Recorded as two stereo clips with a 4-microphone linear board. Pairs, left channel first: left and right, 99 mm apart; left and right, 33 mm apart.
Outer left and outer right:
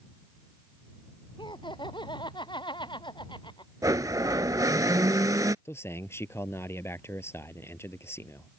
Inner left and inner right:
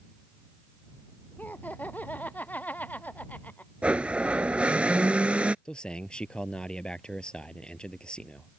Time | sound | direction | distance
1.4 | laughter | 55° left (ahead or behind) | ?
3.8 | a blender | 40° right (ahead or behind) | ?
5.7 | a man speaking | 25° left (ahead or behind) | ?